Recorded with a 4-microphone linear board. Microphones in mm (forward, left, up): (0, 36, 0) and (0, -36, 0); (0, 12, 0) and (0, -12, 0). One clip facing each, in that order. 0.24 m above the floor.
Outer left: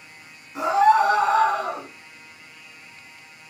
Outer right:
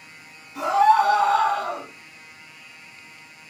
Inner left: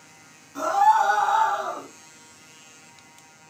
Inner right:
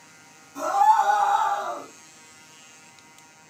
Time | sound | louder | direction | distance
0.6 | a scream | even, even | 35° left (ahead or behind) | 1.9 m